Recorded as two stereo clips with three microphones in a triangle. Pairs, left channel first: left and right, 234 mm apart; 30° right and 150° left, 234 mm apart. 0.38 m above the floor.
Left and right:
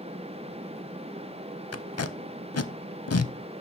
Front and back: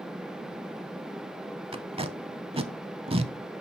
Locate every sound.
1.7 s tape being pulled: 85° left, 0.5 m